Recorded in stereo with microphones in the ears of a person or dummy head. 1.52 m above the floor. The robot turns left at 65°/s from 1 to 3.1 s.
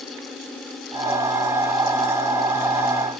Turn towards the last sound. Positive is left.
No sound to turn to.